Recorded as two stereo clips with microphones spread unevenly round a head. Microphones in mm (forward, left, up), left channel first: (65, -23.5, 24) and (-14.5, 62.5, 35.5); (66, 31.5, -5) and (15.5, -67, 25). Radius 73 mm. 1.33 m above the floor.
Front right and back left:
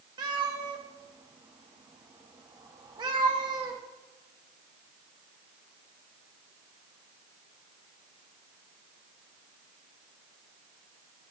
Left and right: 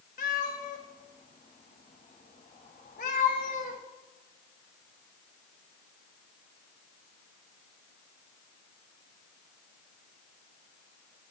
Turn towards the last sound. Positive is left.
turn(degrees=90)